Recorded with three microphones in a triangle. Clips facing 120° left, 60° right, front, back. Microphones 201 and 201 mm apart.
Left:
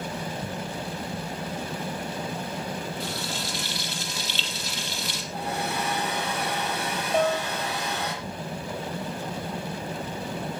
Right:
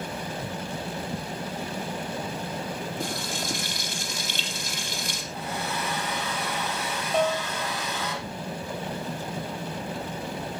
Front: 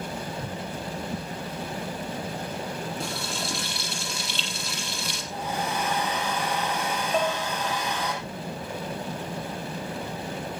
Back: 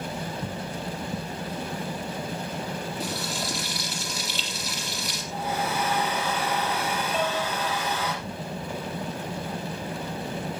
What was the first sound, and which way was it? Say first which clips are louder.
Frying: right 1 dB, back 1 dB; 95° right.